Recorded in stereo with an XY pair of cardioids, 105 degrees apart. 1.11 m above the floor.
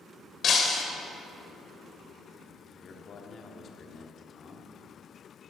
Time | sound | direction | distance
0.4 | breaking glass | 50° left | 2.5 m
2.8 | a man speaking | 50° left | 2 m